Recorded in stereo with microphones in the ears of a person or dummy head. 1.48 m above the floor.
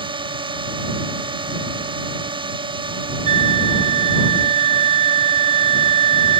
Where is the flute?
35° right (ahead or behind).